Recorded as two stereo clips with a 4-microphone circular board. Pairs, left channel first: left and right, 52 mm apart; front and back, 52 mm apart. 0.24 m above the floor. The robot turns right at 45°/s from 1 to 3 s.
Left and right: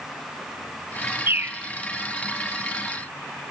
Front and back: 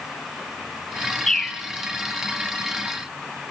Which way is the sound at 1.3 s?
80° right.